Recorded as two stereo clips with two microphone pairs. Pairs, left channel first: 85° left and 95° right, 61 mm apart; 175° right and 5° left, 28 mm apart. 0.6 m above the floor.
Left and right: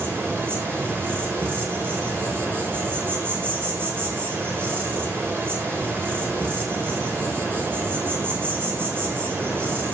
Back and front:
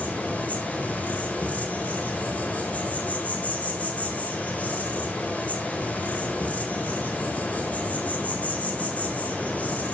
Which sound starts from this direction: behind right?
An insect, at 0.0 s.